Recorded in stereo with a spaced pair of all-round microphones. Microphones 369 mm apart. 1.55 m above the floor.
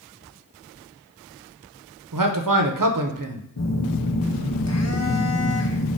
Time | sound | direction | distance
2.1 | a man speaking | 60° right (ahead or behind) | 0.7 m
3.6 | a phone buzzing | 45° left (ahead or behind) | 0.6 m